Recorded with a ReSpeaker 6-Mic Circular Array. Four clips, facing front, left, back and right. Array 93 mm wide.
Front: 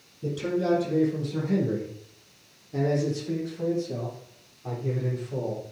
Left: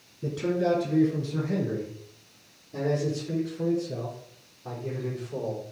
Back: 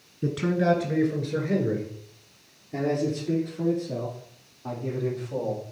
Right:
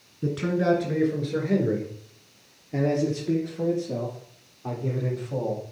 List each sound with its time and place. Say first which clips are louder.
0.2 s a man speaking: right 2 dB, back 3 dB; 150° right, 3 m; by 5.6 s 105° right, 7.5 m